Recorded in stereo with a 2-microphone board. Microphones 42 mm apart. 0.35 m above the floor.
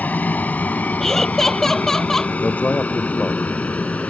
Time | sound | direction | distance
0.0 | an aircraft | 40° left (ahead or behind) | ?
1.0 | laughter | 10° left (ahead or behind) | ?
2.4 | a man speaking | 35° left (ahead or behind) | ?